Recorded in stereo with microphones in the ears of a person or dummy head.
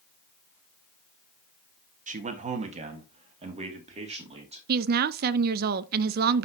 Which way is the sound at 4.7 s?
55° right (ahead or behind).